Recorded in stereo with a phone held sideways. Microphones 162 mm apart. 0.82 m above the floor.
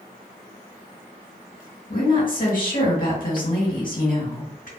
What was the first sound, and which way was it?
A woman speaking, 60° left (ahead or behind).